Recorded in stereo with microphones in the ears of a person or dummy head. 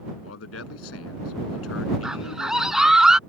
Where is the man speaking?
75° left (ahead or behind).